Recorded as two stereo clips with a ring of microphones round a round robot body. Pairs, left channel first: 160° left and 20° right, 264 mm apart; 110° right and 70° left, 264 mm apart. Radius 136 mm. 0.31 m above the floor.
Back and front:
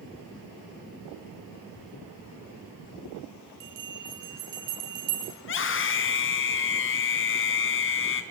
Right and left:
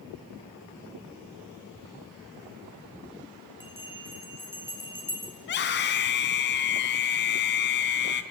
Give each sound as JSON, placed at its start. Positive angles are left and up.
{"t": 3.6, "sound": "a bell", "azimuth_deg": -15, "distance_m": 5.0}
{"t": 5.4, "sound": "a scream", "azimuth_deg": -160, "distance_m": 3.5}